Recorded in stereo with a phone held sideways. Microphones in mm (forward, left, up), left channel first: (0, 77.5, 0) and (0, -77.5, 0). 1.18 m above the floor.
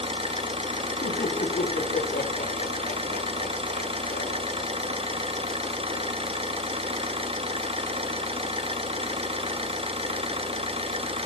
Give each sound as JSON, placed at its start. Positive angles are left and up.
{"t": 0.0, "sound": "an engine running", "side_deg": -40, "distance_m": 0.9}
{"t": 1.0, "sound": "laughter", "side_deg": 75, "distance_m": 3.0}